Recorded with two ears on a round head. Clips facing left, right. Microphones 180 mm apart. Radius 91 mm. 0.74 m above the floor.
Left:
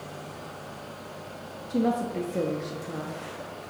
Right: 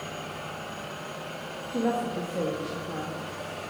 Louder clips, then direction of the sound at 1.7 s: Left 2 dB; 40° left (ahead or behind).